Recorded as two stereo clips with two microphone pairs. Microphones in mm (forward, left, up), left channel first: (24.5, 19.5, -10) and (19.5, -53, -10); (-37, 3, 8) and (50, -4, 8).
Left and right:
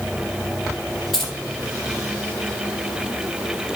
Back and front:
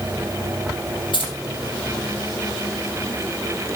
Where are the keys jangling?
Straight behind, 4 m.